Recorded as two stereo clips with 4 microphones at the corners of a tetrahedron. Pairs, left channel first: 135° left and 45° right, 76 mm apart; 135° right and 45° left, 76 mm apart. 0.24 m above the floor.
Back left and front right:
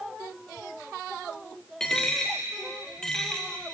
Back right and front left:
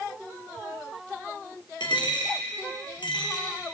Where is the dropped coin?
145° right, 1.6 m.